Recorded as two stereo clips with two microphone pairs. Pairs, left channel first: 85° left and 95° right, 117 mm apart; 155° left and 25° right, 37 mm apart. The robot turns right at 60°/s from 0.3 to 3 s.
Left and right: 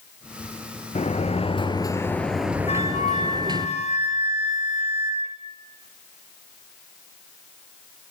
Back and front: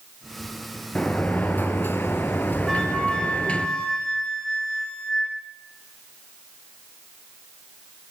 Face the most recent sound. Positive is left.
turn(degrees=85)